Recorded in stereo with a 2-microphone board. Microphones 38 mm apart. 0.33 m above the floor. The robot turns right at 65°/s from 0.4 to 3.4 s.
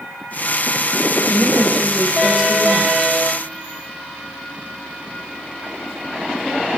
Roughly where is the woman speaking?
Right.